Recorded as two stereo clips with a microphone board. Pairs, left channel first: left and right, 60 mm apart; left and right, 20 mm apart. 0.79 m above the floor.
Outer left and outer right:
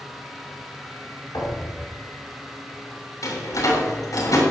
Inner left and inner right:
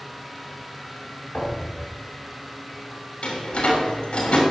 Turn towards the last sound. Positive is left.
turn(degrees=70)  # may be behind; listen again after turning